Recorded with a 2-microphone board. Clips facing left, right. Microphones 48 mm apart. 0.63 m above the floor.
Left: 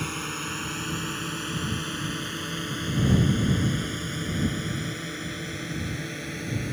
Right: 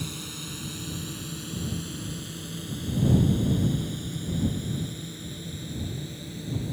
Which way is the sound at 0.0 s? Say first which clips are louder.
Left 6 dB; 50° left (ahead or behind).